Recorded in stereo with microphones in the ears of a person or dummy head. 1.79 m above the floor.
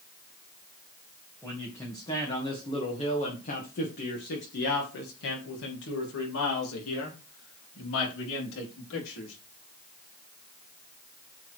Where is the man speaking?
15° left (ahead or behind), 2.5 m; by 9.3 s 70° left (ahead or behind), 4.5 m.